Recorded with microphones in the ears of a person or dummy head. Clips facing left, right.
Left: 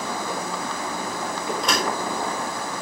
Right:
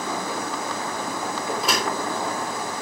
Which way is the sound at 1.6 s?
5° right (ahead or behind).